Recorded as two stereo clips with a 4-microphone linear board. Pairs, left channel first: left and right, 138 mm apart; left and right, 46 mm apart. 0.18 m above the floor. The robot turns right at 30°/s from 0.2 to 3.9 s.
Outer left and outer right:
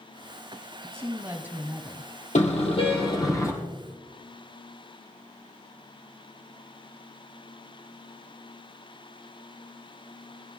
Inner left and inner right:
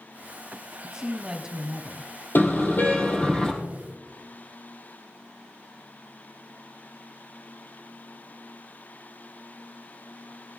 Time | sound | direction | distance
0.8 | a woman speaking | 20° right (ahead or behind) | 1.5 m
2.4 | a car horn | 120° left | 4 m